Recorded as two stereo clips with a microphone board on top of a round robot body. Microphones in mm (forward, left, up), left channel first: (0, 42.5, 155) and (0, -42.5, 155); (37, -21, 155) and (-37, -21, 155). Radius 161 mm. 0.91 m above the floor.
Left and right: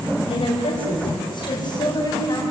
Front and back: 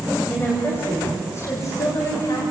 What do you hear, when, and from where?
0.3 s a woman speaking: 70° left, 6 m; by 2.4 s 45° left, 7.5 m